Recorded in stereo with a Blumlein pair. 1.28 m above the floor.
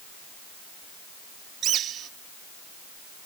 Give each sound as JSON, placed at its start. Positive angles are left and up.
{"t": 1.6, "sound": "a bird", "azimuth_deg": -30}